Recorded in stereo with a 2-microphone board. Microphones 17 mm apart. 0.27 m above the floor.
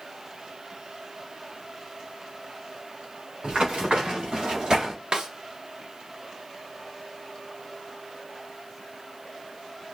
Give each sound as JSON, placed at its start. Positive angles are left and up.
{"t": 3.4, "sound": "running footsteps", "side_deg": -80, "distance_m": 4.0}
{"t": 5.1, "sound": "a snare drum", "side_deg": -85, "distance_m": 1.0}